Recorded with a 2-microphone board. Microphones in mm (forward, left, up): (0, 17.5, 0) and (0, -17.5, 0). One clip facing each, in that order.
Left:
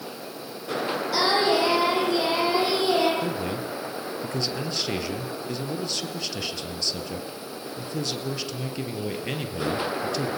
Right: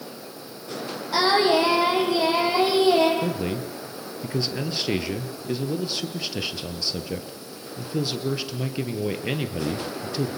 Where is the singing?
15° right (ahead or behind), 6 m.